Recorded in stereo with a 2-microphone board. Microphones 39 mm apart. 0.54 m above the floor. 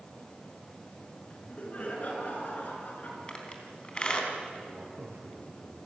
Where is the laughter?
35° left (ahead or behind), 6.5 m; by 3.2 s 45° left (ahead or behind), 7.5 m.